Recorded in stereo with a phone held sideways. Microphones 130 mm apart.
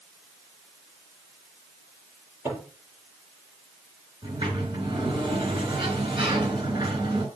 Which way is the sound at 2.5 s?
20° right (ahead or behind).